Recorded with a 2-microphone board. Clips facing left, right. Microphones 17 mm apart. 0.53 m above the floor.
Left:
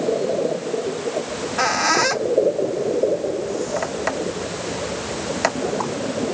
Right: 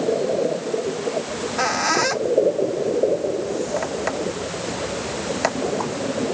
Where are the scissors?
I don't hear scissors.